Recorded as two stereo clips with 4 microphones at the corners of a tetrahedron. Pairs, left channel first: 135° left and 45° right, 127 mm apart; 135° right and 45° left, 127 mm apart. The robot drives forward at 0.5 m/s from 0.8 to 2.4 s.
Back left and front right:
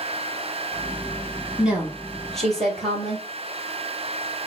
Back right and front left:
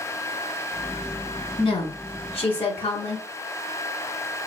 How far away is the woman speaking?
About 1.4 m.